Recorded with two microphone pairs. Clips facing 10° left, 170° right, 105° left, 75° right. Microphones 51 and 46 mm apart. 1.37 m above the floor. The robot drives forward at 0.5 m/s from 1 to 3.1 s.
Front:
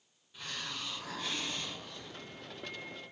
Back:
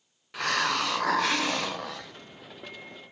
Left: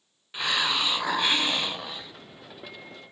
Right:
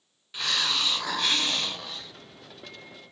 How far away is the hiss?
About 0.6 m.